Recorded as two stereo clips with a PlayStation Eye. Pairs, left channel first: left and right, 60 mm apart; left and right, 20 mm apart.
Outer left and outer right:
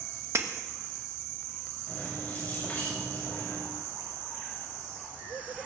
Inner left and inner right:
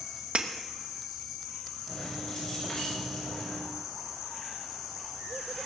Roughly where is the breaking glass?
Right.